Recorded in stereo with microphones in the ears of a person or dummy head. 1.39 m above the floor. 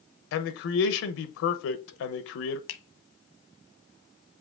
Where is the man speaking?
70° left (ahead or behind), 0.8 m.